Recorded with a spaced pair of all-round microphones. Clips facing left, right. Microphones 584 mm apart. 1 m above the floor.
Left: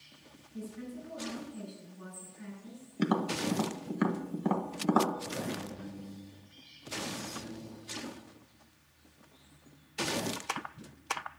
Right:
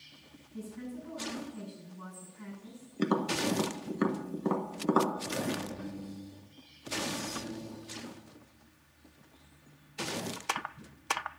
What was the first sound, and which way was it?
A woman speaking, 30° right (ahead or behind).